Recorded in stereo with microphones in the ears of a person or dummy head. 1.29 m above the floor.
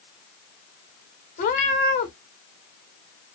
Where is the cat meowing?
35° left (ahead or behind), 0.8 m.